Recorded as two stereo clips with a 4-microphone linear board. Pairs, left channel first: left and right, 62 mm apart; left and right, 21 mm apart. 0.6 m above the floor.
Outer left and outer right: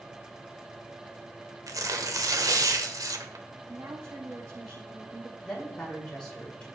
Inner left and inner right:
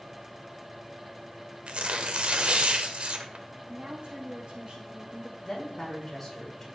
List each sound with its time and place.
1.7 s tearing paper: 70° right (ahead or behind), 1.1 m
3.7 s a woman speaking: 75° right (ahead or behind), 3 m
5.4 s a woman speaking: 15° left (ahead or behind), 6.5 m